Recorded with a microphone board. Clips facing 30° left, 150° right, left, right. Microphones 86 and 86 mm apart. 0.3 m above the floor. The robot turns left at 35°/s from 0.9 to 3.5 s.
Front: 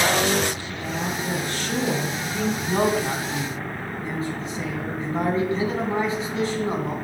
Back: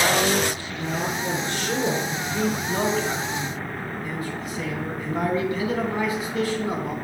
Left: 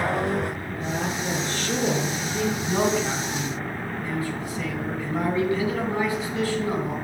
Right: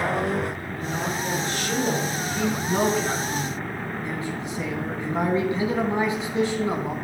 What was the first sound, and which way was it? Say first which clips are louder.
A woman speaking: back 2 dB, even; 165° left.